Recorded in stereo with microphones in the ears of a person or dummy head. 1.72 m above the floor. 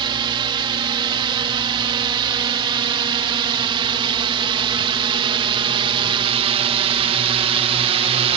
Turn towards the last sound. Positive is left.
turn(degrees=-30)  # may be behind; listen again after turning